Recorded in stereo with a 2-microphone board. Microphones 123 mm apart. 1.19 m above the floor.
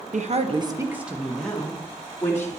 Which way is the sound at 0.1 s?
75° right (ahead or behind).